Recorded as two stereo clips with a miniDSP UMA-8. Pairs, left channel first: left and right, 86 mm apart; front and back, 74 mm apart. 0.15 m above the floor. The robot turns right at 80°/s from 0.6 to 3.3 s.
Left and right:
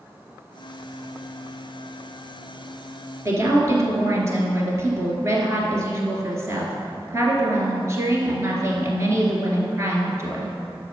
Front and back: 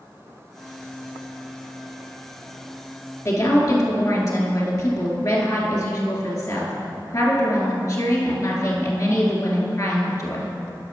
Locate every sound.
3.2 s a woman speaking: 40° right, 2 m; by 10.5 s 35° right, 2 m